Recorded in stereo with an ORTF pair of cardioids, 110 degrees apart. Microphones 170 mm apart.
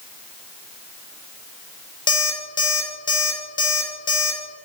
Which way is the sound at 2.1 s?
25° left.